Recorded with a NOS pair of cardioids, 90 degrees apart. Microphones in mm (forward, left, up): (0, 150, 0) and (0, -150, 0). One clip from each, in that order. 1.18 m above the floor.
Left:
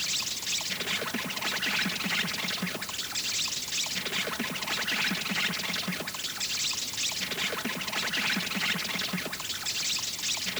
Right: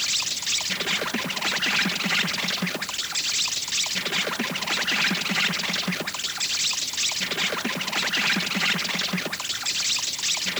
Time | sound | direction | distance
0.0 | an insect | 30° right | ?